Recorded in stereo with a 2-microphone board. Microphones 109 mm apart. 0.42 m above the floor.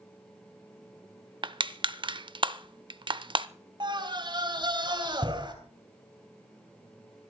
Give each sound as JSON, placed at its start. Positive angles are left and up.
{"t": 1.4, "sound": "crushing", "side_deg": -50, "distance_m": 0.6}
{"t": 3.8, "sound": "a scream", "side_deg": -45, "distance_m": 3.0}